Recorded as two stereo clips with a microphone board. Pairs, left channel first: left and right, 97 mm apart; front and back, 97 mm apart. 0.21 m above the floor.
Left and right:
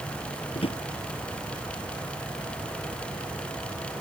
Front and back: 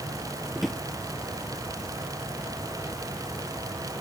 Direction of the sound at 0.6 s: 90° left.